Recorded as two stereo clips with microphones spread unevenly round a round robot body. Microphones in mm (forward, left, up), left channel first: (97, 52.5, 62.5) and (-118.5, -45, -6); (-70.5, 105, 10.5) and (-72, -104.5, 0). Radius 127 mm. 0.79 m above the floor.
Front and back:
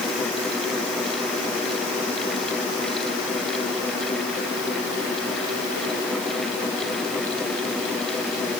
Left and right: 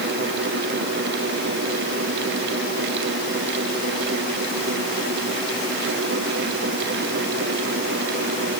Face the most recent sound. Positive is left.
No sound to turn to.